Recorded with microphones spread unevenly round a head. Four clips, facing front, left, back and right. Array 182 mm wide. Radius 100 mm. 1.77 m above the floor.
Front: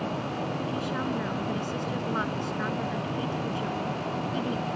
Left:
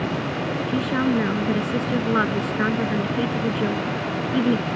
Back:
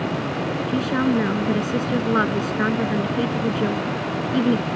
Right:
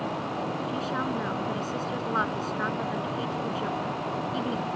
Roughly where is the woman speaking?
Behind left.